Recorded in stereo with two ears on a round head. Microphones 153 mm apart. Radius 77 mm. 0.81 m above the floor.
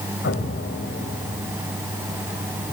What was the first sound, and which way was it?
An explosion, 75° left (ahead or behind).